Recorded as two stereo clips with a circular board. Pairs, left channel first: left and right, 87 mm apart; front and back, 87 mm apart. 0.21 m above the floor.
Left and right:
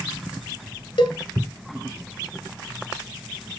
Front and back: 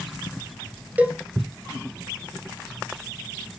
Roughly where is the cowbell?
Left.